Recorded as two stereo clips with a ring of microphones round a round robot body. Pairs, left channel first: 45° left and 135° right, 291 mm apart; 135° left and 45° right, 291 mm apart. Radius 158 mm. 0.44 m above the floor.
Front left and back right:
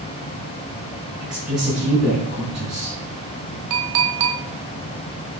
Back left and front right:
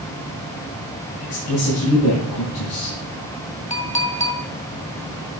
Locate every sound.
1.2 s a woman speaking: 140° left, 5.5 m
3.7 s a clink: 160° right, 1.9 m